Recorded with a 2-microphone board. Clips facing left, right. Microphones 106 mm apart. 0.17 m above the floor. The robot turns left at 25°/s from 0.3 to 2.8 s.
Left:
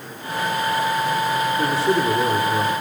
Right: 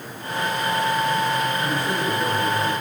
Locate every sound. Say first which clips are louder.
1.6 s a man speaking: left 5 dB; 75° left (ahead or behind), 9.5 m